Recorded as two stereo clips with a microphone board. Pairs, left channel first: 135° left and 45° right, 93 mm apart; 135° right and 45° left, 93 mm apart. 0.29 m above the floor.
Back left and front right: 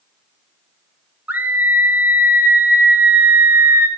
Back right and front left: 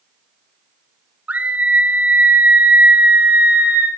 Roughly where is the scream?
Ahead.